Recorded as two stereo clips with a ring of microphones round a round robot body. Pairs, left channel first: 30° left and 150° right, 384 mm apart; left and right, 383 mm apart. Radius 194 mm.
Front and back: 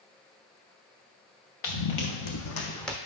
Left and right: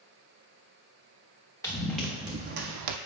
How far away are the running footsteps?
About 2 m.